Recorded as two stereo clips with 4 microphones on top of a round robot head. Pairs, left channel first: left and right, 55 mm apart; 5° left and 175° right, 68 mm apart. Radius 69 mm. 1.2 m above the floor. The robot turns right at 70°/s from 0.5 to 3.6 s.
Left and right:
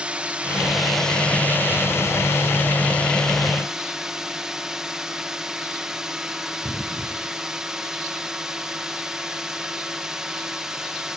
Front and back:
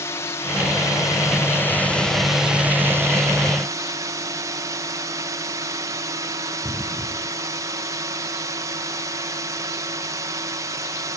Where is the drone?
25° right; by 11.2 s 170° right.